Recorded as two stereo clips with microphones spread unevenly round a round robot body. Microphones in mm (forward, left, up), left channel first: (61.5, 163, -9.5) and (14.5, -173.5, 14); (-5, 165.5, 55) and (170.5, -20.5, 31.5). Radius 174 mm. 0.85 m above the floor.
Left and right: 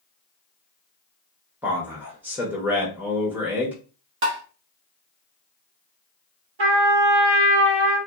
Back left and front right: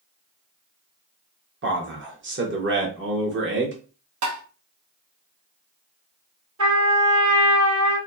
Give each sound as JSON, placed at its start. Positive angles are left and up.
{"t": 1.6, "sound": "a man speaking", "azimuth_deg": -10, "distance_m": 0.9}
{"t": 4.2, "sound": "tapping", "azimuth_deg": -50, "distance_m": 0.7}
{"t": 6.6, "sound": "a trumpet", "azimuth_deg": -90, "distance_m": 1.5}